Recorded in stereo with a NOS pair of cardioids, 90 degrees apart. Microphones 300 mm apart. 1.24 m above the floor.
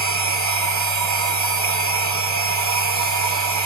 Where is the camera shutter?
No camera shutter in this recording.